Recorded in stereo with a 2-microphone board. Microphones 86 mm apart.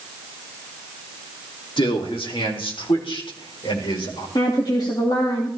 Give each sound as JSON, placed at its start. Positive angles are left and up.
{"t": 1.8, "sound": "a man speaking", "side_deg": 70, "distance_m": 2.5}
{"t": 4.3, "sound": "a woman speaking", "side_deg": 55, "distance_m": 2.5}